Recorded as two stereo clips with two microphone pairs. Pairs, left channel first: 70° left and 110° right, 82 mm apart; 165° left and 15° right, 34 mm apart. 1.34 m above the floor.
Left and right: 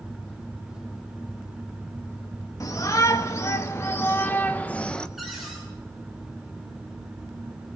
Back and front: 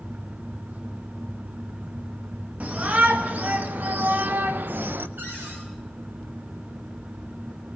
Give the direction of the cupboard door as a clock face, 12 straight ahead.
1 o'clock.